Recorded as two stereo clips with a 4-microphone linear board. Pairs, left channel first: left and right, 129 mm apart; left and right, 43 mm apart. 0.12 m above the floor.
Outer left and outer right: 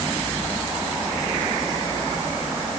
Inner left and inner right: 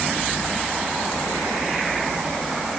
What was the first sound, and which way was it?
Only background noise.